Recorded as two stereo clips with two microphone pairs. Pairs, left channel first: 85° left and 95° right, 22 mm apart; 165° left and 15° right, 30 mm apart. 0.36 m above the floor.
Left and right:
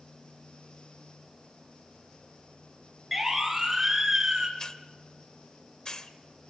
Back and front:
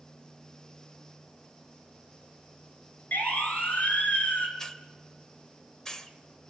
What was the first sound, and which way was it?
A siren, straight behind.